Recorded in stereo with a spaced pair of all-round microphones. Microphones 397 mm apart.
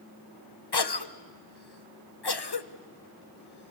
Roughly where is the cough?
Left.